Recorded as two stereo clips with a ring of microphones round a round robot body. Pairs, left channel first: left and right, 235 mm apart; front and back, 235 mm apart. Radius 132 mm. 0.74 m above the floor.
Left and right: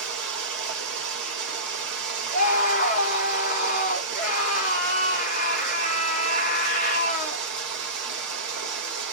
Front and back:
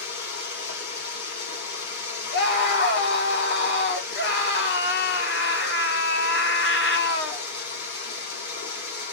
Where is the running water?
50° right, 1.3 m.